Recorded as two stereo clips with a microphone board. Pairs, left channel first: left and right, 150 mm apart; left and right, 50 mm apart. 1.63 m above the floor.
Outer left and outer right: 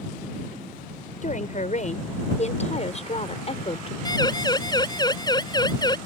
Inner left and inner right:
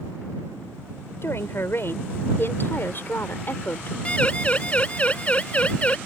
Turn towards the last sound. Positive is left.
turn(degrees=30)  # may be behind; listen again after turning